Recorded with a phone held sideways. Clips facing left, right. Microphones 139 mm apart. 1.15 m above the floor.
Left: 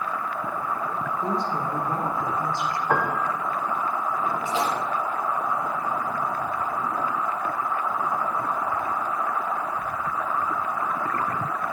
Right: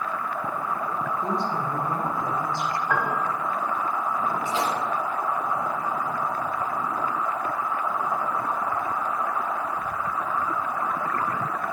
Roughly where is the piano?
Left.